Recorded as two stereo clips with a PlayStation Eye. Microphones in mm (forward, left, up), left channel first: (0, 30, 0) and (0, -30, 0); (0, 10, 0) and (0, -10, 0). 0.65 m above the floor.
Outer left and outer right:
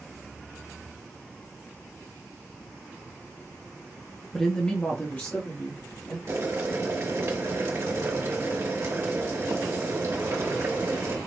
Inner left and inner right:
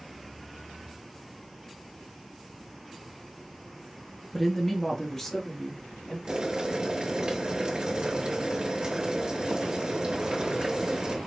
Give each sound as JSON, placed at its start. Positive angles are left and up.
{"t": 4.3, "sound": "a woman speaking", "side_deg": 5, "distance_m": 0.6}
{"t": 6.3, "sound": "boiling", "side_deg": -50, "distance_m": 1.2}